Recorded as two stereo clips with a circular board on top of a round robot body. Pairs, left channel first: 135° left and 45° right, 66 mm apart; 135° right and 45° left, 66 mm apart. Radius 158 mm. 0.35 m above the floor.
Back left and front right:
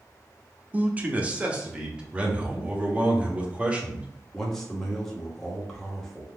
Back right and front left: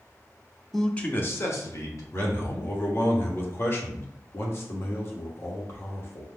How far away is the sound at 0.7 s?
About 1.0 m.